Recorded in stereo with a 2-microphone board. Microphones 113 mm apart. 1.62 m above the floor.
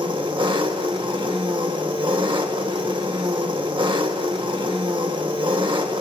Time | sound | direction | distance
0.0 | an engine running | 45° right (ahead or behind) | 1.4 m